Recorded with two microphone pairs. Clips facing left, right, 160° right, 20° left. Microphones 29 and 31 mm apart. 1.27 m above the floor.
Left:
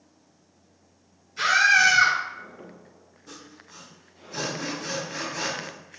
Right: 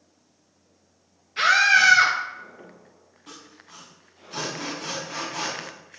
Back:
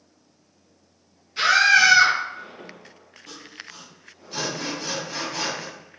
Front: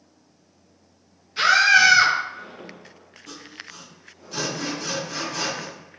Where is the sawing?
85° right, 4.5 m.